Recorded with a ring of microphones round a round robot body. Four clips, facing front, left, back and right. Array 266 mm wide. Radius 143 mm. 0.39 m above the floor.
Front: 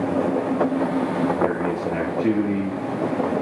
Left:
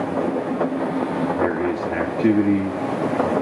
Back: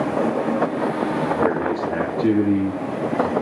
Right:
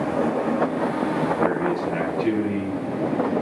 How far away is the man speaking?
About 7.5 m.